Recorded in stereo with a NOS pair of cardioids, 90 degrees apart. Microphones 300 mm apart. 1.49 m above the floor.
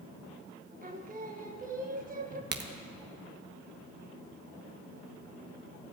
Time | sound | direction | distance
0.8 | singing | 30° right | 1.2 m
2.5 | a crack | 35° right | 1.1 m